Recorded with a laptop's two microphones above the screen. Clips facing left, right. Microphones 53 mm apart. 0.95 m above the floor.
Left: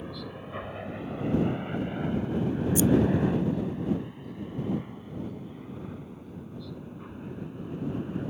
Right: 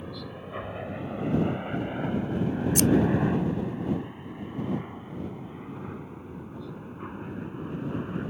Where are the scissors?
70° right (ahead or behind).